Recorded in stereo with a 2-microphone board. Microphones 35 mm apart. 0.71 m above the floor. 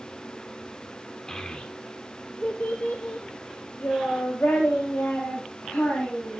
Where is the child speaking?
20° left (ahead or behind), 1.3 m; by 6.4 s 65° left (ahead or behind), 4 m.